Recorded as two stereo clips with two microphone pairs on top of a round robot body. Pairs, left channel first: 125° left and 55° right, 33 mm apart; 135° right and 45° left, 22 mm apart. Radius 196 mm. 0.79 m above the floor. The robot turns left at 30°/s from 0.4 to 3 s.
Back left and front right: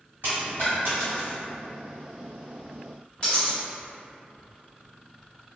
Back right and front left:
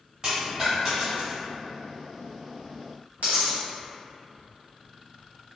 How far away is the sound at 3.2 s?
About 1.3 m.